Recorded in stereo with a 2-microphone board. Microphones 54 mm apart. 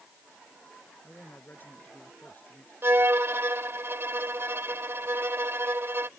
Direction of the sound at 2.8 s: 50° right (ahead or behind).